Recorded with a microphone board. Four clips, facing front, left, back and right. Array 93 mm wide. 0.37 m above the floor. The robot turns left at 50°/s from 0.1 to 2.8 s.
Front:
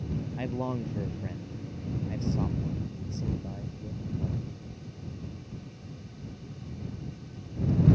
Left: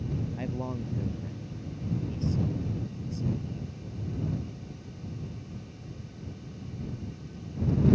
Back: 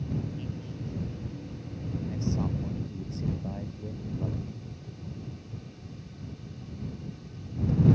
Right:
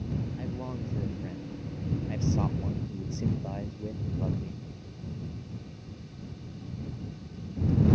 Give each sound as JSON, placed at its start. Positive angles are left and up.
{"t": 0.4, "sound": "a man speaking", "azimuth_deg": 20}